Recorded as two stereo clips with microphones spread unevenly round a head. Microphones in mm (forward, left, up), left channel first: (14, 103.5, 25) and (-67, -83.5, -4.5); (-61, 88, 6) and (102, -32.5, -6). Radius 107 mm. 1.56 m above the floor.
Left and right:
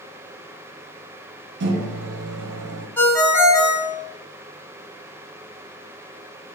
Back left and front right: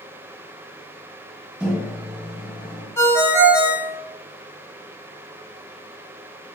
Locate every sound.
1.6 s a microwave: 120° right, 0.6 m
3.0 s a ringtone: 105° left, 1.0 m